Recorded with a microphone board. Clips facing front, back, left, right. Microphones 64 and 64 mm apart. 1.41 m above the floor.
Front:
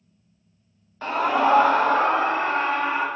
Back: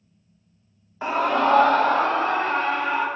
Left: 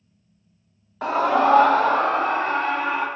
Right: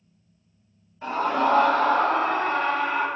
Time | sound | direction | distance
1.0 | a scream | 105° left | 0.7 m